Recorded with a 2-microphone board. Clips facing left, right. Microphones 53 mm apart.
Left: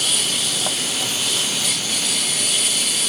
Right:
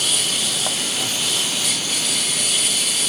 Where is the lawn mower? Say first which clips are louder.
Even; centre (ahead or behind).